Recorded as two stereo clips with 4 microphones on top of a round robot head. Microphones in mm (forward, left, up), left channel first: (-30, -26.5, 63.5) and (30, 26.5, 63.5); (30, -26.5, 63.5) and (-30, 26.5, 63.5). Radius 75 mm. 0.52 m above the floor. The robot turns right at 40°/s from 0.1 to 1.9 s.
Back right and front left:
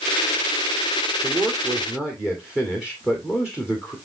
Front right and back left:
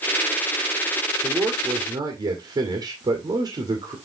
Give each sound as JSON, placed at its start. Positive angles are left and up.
{"t": 1.2, "sound": "a man speaking", "azimuth_deg": 95, "distance_m": 2.0}